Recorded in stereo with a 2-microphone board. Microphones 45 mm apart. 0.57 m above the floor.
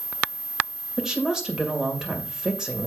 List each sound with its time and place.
1.0 s a woman speaking: 15° right (ahead or behind), 2 m